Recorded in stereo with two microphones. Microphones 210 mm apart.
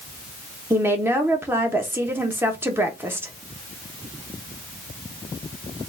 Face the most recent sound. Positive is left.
turn(degrees=-10)  # may be behind; listen again after turning